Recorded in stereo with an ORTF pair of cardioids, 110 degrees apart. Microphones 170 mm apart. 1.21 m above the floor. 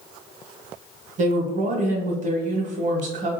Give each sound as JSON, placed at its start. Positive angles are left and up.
{"t": 1.2, "sound": "a woman speaking", "azimuth_deg": -45, "distance_m": 1.0}